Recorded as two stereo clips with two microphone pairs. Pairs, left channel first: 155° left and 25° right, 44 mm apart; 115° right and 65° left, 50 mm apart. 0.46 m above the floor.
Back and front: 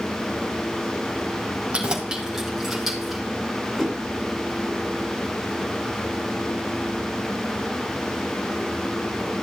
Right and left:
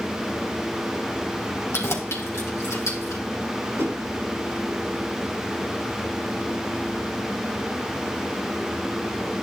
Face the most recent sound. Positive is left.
turn(degrees=75)